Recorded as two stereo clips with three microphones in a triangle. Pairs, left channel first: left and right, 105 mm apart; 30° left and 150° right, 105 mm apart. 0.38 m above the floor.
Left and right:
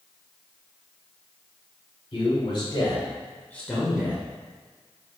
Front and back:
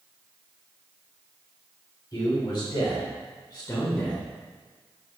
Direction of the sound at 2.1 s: 70° left.